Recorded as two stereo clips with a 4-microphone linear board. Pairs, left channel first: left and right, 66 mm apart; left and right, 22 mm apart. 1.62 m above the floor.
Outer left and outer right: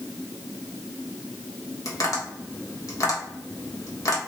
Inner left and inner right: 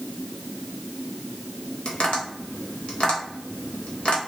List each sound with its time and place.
1.9 s tapping: 55° left (ahead or behind), 1.3 m